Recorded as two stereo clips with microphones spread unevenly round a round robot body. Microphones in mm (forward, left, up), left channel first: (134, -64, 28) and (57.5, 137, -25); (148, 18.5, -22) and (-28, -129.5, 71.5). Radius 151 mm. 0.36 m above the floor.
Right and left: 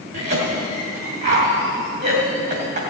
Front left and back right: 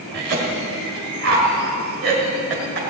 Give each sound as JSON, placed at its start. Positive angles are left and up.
{"t": 0.1, "sound": "a cough", "azimuth_deg": 155, "distance_m": 2.0}